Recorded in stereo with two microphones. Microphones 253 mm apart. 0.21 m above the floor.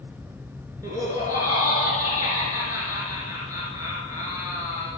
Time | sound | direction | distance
0.8 | laughter | 15° right (ahead or behind) | 3.5 m